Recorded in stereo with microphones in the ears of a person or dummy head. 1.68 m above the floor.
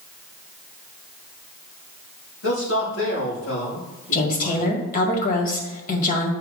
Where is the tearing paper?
I don't hear tearing paper.